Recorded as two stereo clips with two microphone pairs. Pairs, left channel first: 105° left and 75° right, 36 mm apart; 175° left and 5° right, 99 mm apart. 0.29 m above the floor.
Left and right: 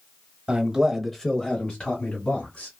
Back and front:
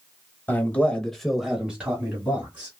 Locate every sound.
0.5 s a man speaking: 125° right, 1.3 m; by 2.7 s 70° left, 2.5 m